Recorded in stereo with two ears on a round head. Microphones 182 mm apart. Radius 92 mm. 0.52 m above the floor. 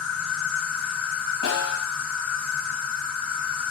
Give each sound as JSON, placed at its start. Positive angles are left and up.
{"t": 0.0, "sound": "an insect", "side_deg": 0, "distance_m": 2.5}
{"t": 1.4, "sound": "a snare drum", "side_deg": 70, "distance_m": 2.0}